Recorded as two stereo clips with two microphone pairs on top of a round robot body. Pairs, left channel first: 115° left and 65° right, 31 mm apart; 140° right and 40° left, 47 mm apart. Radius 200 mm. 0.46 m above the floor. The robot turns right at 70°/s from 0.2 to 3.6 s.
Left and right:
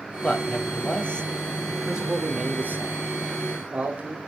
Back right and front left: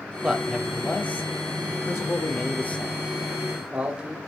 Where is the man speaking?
105° left, 2.5 m; by 4.2 s 20° right, 2.5 m.